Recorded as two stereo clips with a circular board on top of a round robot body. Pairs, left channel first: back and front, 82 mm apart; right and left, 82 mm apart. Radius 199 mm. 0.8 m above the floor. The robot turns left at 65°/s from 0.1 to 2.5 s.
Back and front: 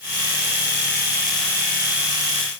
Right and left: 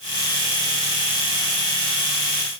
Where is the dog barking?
I don't hear a dog barking.